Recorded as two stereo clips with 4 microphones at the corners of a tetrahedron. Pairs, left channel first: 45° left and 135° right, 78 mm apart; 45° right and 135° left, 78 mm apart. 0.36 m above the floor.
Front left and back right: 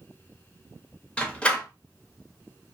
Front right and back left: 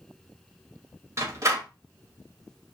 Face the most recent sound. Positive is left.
turn(degrees=115)